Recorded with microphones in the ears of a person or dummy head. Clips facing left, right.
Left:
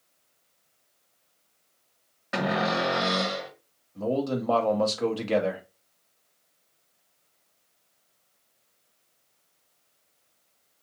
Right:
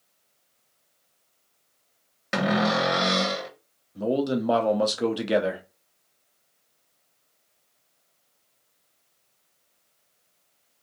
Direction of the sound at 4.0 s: 20° right (ahead or behind).